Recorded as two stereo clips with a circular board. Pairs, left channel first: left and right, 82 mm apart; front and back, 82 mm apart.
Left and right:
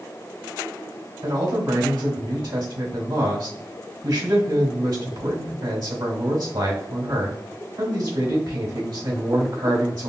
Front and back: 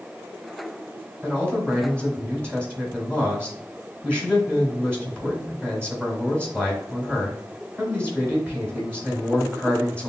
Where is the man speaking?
75° right, 1.9 m.